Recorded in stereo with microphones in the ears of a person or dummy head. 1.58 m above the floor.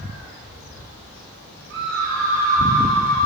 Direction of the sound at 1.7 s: 70° right (ahead or behind).